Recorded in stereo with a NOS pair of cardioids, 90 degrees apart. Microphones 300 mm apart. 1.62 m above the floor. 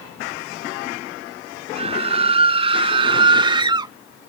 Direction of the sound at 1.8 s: 20° right.